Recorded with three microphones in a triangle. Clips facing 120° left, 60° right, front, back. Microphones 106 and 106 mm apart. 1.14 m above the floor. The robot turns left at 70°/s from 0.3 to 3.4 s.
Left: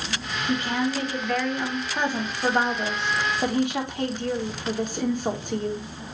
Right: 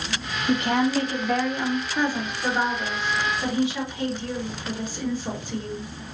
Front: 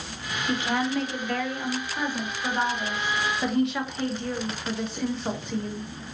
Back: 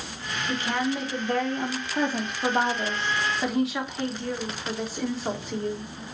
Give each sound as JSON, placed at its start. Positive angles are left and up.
{"t": 0.5, "sound": "a woman speaking", "azimuth_deg": -65, "distance_m": 1.1}